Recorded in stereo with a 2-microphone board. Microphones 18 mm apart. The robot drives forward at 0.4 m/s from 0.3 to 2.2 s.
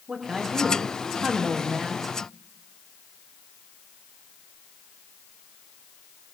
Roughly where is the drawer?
No drawer in this recording.